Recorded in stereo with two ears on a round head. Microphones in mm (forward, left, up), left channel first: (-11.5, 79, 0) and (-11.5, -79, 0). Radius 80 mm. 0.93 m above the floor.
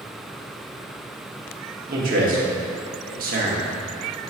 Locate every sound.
1.9 s a man speaking: 55° right (ahead or behind), 1.3 m